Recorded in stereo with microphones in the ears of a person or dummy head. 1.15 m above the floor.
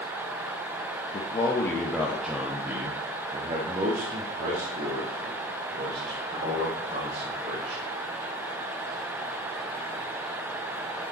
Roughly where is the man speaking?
Left.